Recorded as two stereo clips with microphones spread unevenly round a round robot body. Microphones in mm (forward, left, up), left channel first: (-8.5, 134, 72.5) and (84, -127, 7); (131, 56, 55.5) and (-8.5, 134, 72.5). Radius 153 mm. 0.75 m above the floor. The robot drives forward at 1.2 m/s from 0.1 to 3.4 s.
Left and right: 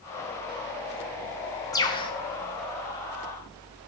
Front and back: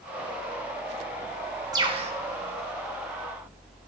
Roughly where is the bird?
Behind.